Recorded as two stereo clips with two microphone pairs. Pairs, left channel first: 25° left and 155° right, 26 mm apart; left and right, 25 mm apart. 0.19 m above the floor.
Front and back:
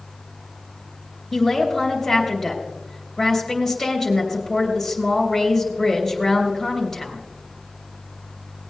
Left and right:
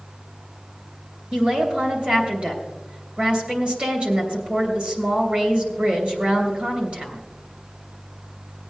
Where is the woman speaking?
60° right, 3 m.